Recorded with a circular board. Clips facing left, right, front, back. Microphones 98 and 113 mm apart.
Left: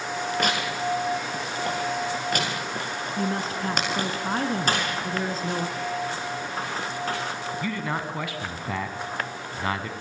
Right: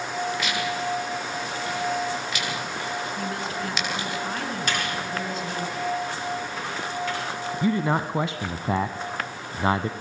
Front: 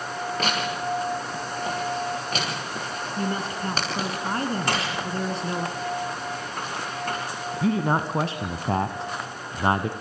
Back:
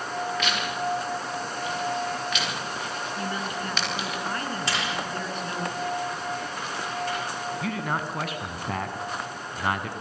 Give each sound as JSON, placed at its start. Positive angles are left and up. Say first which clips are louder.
{"t": 0.4, "sound": "tearing paper", "louder": "left 1 dB, front 1 dB", "azimuth_deg": 50, "distance_m": 6.5}
{"t": 3.2, "sound": "a woman speaking", "louder": "left 2 dB, front 5 dB", "azimuth_deg": 45, "distance_m": 2.5}
{"t": 4.7, "sound": "a door slam", "louder": "left 2 dB, front 2 dB", "azimuth_deg": 40, "distance_m": 9.0}
{"t": 7.6, "sound": "a man speaking", "louder": "right 8 dB, front 9 dB", "azimuth_deg": -40, "distance_m": 1.2}